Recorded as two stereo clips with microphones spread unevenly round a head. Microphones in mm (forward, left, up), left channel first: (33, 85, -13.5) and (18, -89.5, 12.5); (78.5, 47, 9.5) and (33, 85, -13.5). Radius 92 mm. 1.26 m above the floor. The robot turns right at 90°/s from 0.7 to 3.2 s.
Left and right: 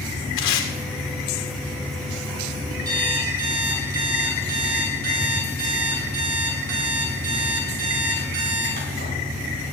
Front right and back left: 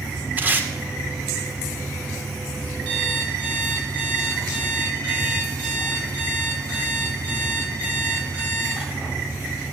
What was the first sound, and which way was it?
Tape being pulled, 75° left.